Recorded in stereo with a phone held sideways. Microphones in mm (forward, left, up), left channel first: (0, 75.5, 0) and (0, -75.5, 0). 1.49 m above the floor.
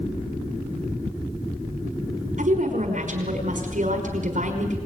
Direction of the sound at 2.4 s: 55° right (ahead or behind).